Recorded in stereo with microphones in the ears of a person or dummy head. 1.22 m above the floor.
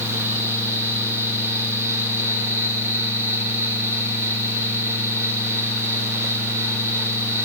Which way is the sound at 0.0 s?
10° right (ahead or behind).